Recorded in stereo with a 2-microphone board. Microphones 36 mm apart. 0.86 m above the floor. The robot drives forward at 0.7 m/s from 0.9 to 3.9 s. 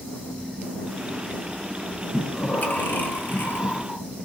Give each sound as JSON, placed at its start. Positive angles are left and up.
{"t": 2.1, "sound": "breathing", "side_deg": 50, "distance_m": 1.4}